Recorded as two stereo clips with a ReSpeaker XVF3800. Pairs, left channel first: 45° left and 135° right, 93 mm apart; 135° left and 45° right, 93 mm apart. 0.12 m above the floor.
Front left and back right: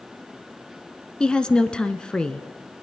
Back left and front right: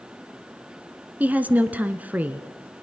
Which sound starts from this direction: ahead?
A woman speaking, at 1.2 s.